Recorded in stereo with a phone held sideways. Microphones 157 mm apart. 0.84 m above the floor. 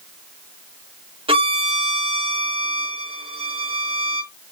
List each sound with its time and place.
1.3 s a violin: 35° right (ahead or behind), 1.0 m